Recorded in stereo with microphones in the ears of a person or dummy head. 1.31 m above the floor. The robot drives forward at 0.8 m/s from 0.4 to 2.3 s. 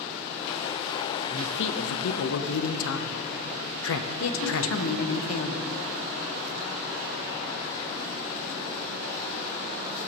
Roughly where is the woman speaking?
Left.